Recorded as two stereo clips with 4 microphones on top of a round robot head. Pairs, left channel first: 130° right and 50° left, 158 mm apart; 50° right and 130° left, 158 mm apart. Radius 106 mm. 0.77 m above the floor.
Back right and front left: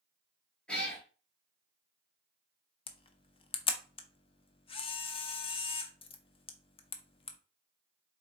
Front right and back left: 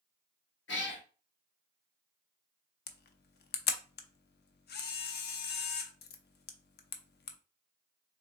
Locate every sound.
0.7 s a cat meowing: 45° right, 1.3 m
2.9 s a camera shutter: 70° right, 0.6 m